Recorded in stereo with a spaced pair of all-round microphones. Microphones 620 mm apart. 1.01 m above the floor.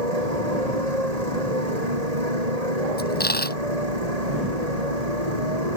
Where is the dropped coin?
15° left (ahead or behind).